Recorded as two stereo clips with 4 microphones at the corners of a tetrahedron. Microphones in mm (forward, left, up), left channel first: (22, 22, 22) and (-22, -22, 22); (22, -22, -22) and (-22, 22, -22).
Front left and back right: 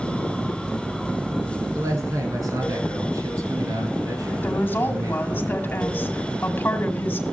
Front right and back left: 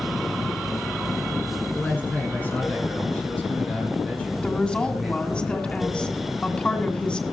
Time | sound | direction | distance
1.8 | a man speaking | 110° right | 9 m
4.4 | a woman speaking | 20° left | 2.0 m